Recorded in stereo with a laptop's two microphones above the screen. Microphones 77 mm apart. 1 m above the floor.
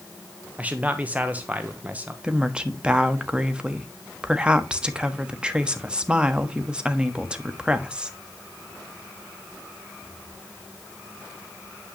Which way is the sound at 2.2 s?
15° right (ahead or behind).